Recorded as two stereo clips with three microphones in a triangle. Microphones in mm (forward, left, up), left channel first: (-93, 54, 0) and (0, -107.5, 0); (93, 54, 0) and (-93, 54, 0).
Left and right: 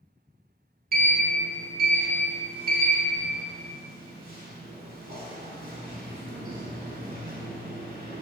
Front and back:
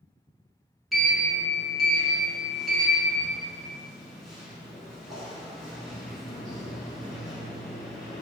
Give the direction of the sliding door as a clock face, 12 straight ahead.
3 o'clock.